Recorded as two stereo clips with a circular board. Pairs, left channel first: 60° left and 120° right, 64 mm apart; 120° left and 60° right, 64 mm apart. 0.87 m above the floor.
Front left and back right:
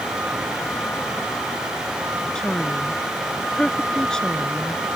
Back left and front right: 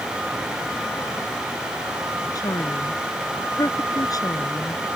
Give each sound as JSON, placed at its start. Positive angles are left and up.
{"t": 2.4, "sound": "a woman speaking", "azimuth_deg": 140}